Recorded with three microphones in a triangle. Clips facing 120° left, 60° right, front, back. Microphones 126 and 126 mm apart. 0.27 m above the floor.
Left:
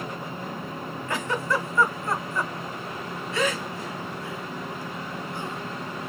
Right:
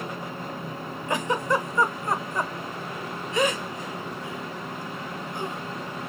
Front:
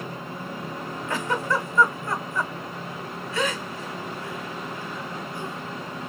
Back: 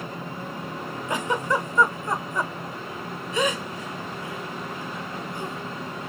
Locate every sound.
1.1 s a giggle: 120° right, 0.5 m